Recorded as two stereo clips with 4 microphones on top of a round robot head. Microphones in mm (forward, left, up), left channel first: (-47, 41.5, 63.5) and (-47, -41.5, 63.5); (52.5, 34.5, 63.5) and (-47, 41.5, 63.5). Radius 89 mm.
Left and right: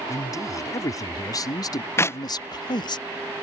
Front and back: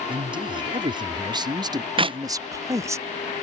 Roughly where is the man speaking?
Behind left.